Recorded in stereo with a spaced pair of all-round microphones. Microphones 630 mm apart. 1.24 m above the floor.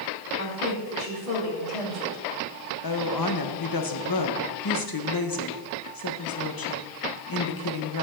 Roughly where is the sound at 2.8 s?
Left.